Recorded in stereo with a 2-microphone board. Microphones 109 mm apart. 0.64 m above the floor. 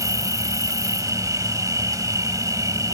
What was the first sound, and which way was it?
An insect, 30° right (ahead or behind).